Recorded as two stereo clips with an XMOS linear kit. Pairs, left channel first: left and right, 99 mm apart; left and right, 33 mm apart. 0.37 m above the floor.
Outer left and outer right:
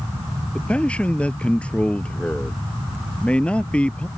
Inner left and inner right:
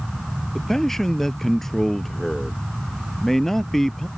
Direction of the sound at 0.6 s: 10° left (ahead or behind).